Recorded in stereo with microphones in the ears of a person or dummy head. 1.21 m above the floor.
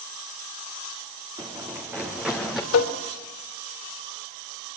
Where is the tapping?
85° left, 3 m.